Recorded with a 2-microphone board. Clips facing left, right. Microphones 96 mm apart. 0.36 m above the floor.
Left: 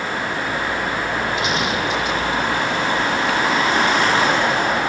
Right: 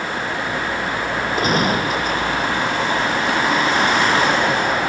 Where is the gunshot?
40° right (ahead or behind).